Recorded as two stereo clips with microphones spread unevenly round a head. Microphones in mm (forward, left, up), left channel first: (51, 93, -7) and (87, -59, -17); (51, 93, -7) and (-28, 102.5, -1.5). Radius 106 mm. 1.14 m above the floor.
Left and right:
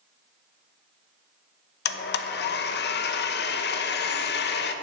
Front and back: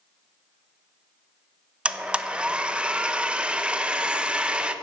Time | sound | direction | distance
1.9 | a blender | 95° left | 0.8 m